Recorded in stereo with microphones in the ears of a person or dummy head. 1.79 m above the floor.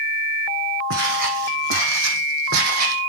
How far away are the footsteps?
About 6 m.